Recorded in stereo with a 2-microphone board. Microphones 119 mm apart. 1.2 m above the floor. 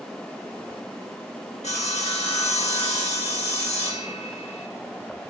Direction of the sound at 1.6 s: 75° left (ahead or behind).